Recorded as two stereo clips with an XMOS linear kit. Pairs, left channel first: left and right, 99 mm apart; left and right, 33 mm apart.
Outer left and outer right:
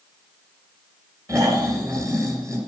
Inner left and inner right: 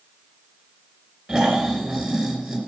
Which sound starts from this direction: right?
Snoring, at 1.3 s.